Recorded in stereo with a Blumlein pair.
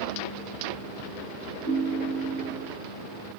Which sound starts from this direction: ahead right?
A ringtone, at 1.6 s.